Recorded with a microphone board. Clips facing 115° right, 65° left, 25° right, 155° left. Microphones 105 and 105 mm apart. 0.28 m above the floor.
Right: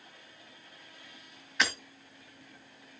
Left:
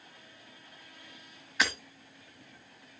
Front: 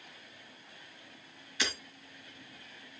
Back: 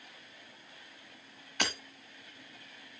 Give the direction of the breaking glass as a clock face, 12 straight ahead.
7 o'clock.